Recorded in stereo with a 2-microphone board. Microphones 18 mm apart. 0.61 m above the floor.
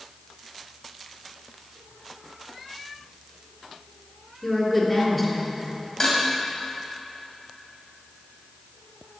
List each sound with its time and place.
4.4 s a woman speaking: 15° left (ahead or behind), 2.0 m
6.0 s dishes clattering: 35° left (ahead or behind), 2 m